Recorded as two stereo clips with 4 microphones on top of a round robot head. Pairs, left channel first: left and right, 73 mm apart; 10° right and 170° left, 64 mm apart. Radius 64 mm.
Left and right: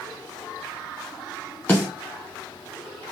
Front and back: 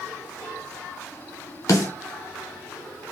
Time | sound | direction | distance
1.7 | a snare drum | 15° left | 0.9 m